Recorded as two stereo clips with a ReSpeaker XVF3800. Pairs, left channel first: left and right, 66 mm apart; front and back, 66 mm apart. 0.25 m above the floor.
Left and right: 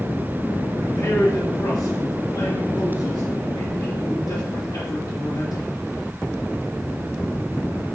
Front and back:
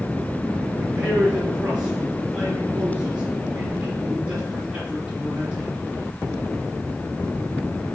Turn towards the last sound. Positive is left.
turn(degrees=105)